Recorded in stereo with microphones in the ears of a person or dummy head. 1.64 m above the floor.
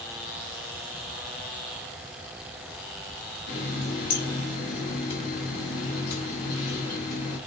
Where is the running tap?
60° left (ahead or behind), 1.6 m.